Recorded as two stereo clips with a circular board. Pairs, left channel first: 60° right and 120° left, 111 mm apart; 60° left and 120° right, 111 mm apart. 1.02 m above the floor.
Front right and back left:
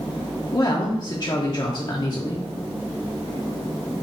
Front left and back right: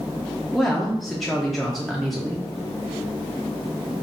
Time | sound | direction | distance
0.5 | a woman speaking | 30° right | 0.5 m